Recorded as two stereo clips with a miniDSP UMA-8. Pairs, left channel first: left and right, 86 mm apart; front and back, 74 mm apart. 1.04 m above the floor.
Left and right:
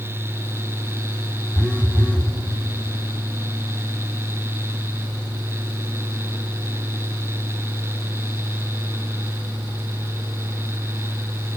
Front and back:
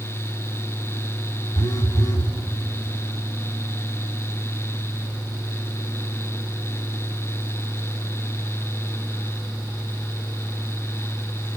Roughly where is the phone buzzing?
Ahead.